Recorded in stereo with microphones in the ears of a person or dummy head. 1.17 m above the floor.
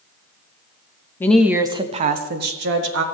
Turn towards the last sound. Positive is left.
turn(degrees=-70)  # may be behind; listen again after turning